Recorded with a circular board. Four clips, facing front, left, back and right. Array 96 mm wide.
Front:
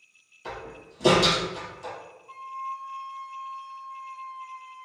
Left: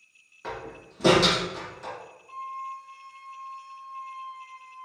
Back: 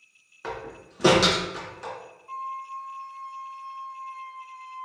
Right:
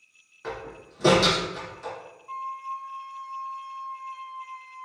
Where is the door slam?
175° right, 1.7 m.